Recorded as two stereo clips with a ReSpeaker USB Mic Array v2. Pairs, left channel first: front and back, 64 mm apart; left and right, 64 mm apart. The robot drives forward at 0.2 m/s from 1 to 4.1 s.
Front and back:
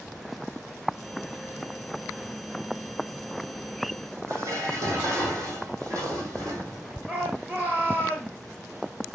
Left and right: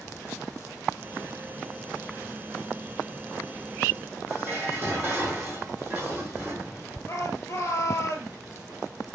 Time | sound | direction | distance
4.3 | dishes clattering | 150° right | 3 m
7.1 | a shout | 125° left | 2 m